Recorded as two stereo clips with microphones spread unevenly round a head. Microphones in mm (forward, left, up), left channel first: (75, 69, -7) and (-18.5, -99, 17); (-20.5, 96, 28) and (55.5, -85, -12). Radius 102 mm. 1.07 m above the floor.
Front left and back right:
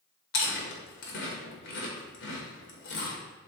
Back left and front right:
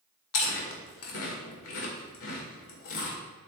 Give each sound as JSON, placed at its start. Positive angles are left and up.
{"t": 0.3, "sound": "chewing", "azimuth_deg": 105, "distance_m": 2.0}